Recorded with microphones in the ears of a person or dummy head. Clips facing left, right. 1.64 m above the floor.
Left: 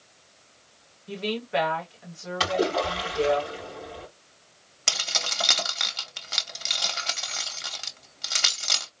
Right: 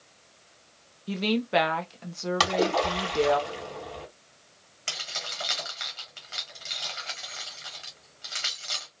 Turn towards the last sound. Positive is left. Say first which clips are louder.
# left 6 dB
turn(degrees=60)  # may be behind; listen again after turning